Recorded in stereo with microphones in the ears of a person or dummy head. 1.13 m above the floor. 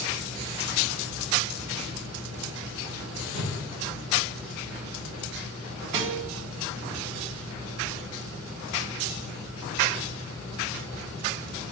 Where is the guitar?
25° right (ahead or behind), 0.7 m.